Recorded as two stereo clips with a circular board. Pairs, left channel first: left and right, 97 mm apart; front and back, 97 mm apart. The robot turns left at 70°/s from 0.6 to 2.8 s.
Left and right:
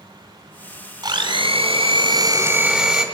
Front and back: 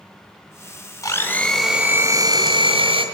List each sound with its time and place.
1.0 s a blender: 50° right, 3 m; by 3.0 s 175° right, 3 m